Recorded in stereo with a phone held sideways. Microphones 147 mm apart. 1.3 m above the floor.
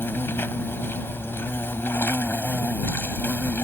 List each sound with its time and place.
0.0 s an insect: 15° left (ahead or behind)